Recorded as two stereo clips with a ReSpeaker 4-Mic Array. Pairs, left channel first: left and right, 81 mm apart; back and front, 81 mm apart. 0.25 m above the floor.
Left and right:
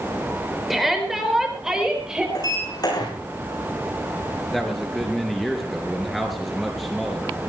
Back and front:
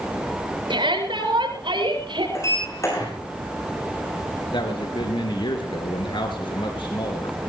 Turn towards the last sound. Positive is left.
turn(degrees=180)